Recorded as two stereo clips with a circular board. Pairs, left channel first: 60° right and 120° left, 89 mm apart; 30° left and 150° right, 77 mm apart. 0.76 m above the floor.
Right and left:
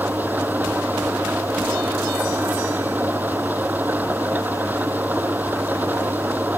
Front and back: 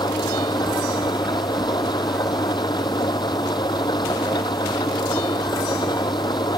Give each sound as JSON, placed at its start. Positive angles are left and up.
{"t": 0.0, "sound": "an engine running", "azimuth_deg": 50}